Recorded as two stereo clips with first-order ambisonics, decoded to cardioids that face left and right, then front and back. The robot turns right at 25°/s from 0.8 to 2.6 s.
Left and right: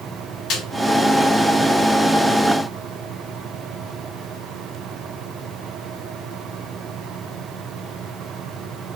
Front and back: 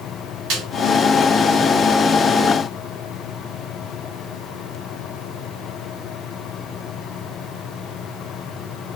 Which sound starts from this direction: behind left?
A snare drum, at 0.5 s.